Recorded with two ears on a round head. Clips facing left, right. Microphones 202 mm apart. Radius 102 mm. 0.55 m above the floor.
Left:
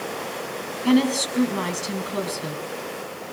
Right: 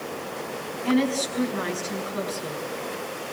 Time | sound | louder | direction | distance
0.8 | a woman speaking | left 4 dB | 55° left (ahead or behind) | 5 m